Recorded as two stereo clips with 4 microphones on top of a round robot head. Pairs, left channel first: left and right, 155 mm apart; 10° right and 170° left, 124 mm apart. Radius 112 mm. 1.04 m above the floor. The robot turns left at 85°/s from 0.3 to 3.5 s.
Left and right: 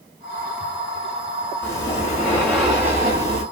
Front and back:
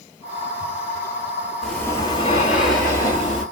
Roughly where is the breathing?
Left.